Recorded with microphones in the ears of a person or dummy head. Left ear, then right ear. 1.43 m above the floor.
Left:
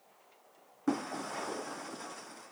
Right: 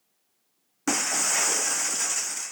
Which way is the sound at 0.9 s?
70° right (ahead or behind).